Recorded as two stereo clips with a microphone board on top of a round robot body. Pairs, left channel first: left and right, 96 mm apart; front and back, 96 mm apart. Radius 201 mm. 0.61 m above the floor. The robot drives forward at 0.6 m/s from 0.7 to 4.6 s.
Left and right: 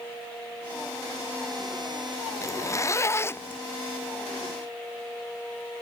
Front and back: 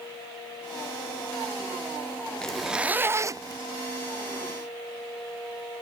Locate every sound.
2.4 s a zipper: 75° left; by 3.6 s 150° left